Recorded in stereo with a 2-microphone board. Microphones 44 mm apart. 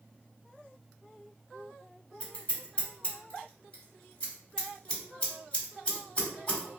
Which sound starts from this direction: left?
Scissors, at 2.2 s.